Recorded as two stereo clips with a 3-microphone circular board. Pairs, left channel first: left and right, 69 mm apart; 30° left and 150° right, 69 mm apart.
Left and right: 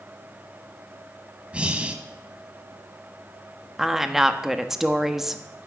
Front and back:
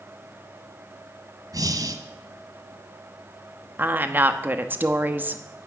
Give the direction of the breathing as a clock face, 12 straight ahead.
5 o'clock.